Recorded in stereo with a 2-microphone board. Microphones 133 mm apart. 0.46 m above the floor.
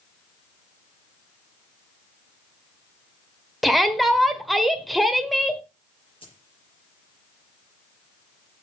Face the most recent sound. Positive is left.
turn(degrees=40)  # may be behind; listen again after turning